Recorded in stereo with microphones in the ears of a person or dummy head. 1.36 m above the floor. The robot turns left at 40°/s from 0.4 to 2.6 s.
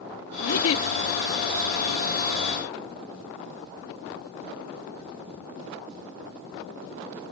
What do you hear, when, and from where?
0.4 s a giggle: 80° left; by 0.8 s 65° left (ahead or behind)